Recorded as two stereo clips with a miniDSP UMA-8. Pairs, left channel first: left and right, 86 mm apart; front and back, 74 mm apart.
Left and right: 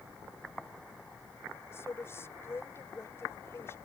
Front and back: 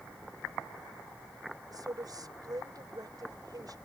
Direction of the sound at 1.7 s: 150° left.